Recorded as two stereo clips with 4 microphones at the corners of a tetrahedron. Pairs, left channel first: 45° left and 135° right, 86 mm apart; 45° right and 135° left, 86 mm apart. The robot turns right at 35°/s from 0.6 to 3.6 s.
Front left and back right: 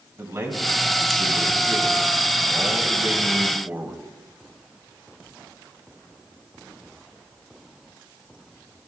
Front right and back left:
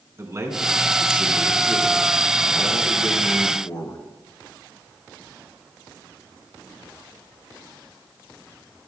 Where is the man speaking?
Straight behind, 3 m; by 4.0 s 75° right, 3 m.